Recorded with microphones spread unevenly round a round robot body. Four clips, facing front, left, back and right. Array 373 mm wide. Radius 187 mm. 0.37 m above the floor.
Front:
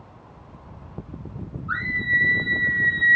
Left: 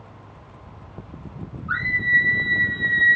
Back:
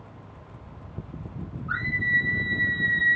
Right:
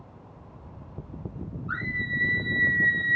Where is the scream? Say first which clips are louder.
Left 10 dB, front 2 dB; 165° right, 8 m; by 3.2 s 160° right, 7 m.